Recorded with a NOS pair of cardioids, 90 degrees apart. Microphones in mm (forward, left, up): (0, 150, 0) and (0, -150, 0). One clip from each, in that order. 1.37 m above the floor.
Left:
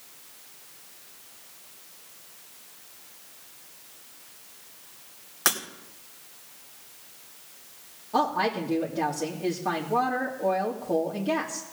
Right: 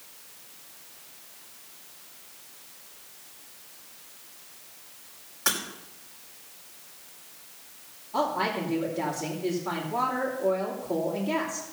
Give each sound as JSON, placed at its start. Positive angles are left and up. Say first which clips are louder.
{"t": 5.5, "sound": "breaking glass", "louder": "left 2 dB", "azimuth_deg": 70, "distance_m": 2.5}
{"t": 8.1, "sound": "a woman speaking", "louder": "left 2 dB", "azimuth_deg": 65, "distance_m": 2.5}